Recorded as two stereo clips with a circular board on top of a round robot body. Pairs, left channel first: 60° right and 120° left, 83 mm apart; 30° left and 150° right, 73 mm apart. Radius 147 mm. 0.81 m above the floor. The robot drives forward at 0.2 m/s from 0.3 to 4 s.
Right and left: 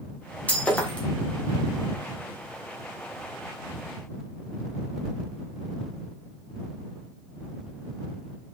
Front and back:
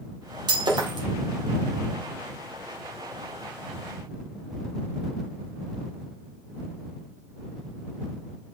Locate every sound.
0.5 s breaking glass: 135° right, 1.5 m